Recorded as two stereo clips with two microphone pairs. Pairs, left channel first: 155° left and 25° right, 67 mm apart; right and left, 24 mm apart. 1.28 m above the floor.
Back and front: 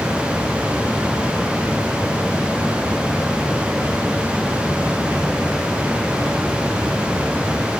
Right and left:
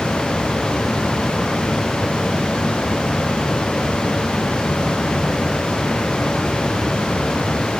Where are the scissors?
I don't hear scissors.